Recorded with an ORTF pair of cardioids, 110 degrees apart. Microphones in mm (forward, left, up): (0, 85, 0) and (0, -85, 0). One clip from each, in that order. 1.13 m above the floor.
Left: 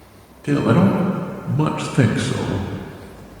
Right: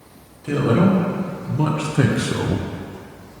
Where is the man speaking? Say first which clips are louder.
Left 1 dB; 40° left, 1.3 m; by 2.6 s 25° right, 0.5 m.